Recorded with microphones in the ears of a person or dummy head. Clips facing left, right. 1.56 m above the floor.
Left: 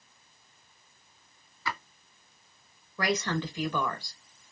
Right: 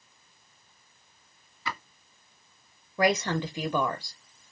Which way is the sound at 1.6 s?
25° right (ahead or behind).